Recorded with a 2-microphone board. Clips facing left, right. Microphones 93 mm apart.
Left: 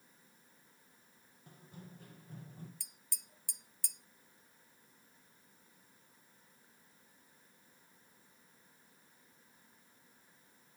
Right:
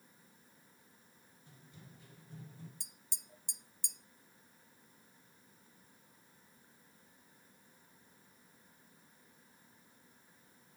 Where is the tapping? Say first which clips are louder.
Right 1 dB; 20° right (ahead or behind), 0.6 m.